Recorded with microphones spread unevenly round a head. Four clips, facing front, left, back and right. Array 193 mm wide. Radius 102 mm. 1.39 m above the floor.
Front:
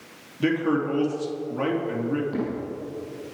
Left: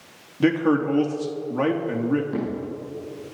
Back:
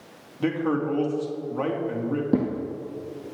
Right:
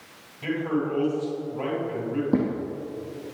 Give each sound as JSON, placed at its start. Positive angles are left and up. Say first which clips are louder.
{"t": 0.4, "sound": "a man speaking", "louder": "left 7 dB, front 2 dB", "azimuth_deg": 85, "distance_m": 3.0}
{"t": 2.3, "sound": "footsteps", "louder": "right 5 dB, back 6 dB", "azimuth_deg": -145, "distance_m": 3.0}